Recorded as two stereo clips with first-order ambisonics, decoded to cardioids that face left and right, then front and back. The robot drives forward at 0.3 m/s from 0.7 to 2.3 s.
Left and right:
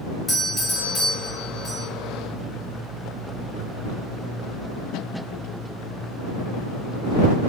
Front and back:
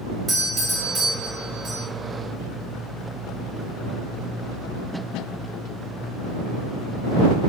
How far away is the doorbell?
About 0.7 m.